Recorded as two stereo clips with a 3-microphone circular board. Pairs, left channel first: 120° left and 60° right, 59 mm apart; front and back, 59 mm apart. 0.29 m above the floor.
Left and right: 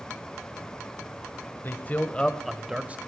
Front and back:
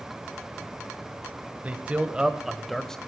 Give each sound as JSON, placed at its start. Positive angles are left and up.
{"t": 1.6, "sound": "a man speaking", "azimuth_deg": 135, "distance_m": 1.2}